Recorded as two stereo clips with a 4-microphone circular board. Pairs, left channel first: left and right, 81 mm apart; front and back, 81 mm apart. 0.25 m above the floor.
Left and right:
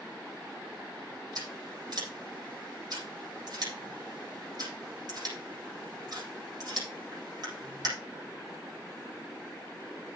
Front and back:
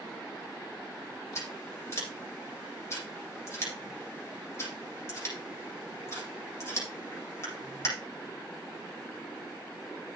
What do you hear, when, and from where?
1.4 s scissors: 55° right, 8 m